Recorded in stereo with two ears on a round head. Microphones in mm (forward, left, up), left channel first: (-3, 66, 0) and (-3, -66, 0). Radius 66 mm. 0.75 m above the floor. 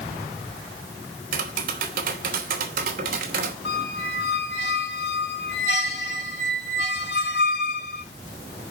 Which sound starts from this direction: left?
A squeak, at 3.6 s.